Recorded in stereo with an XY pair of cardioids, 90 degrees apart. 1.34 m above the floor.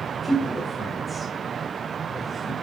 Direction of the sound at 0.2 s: 10° left.